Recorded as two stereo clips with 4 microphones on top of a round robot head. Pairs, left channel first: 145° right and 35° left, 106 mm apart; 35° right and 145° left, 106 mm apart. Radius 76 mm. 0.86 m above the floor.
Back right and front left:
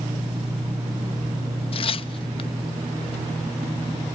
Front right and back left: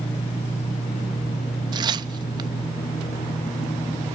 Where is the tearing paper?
170° right, 0.8 m.